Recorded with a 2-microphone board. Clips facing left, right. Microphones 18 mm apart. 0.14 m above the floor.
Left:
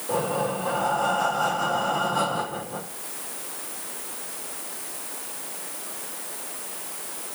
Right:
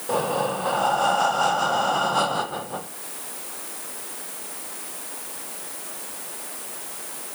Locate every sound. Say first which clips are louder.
0.1 s breathing: right 2 dB; 40° right (ahead or behind), 1.0 m